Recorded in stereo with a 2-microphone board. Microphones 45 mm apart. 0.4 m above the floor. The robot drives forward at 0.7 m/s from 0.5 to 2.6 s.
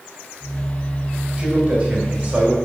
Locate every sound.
1.4 s a man speaking: 25° right (ahead or behind), 2 m; by 2.5 s 30° right (ahead or behind), 1.7 m